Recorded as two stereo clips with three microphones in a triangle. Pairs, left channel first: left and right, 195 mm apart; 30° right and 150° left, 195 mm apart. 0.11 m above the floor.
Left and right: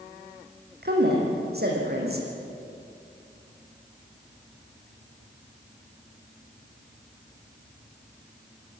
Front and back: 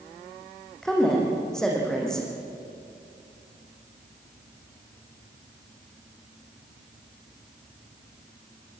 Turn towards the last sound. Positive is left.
turn(degrees=-115)